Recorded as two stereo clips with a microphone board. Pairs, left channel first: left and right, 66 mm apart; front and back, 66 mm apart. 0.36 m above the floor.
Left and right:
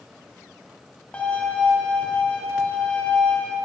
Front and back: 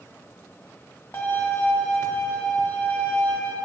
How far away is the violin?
About 1.6 m.